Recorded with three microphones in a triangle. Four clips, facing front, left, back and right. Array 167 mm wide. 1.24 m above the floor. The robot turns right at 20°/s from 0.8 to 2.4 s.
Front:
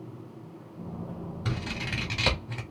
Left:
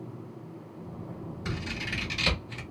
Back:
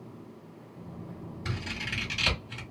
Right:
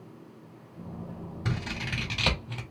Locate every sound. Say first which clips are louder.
1.4 s scissors: right 2 dB, front 3 dB; 65° right, 1.5 m; by 2.6 s 50° right, 1.5 m